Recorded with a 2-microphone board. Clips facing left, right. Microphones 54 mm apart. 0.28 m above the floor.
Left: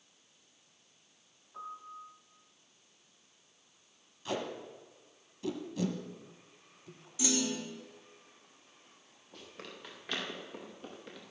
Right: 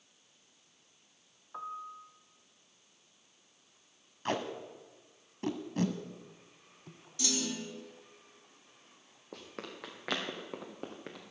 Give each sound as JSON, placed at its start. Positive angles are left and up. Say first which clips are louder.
{"t": 1.5, "sound": "a piano", "louder": "right 3 dB", "side_deg": -55, "distance_m": 0.9}
{"t": 4.2, "sound": "tape being pulled", "louder": "right 2 dB", "side_deg": -55, "distance_m": 1.2}
{"t": 7.2, "sound": "a clunk", "louder": "left 3 dB", "side_deg": 10, "distance_m": 2.0}
{"t": 9.3, "sound": "running footsteps", "louder": "right 4 dB", "side_deg": -80, "distance_m": 3.0}